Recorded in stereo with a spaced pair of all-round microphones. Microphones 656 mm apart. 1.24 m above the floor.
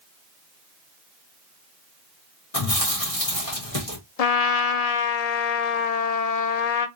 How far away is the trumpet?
About 0.6 m.